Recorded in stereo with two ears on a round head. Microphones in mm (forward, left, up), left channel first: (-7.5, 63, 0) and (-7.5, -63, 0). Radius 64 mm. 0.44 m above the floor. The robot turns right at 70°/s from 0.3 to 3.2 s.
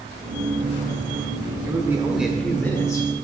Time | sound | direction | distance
1.6 | a man speaking | 45° right | 1.0 m